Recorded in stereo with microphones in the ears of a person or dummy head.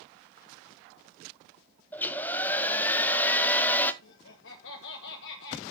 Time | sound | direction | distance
1.9 | a hair dryer | 15° left (ahead or behind) | 0.8 m
4.0 | laughter | 70° left (ahead or behind) | 1.2 m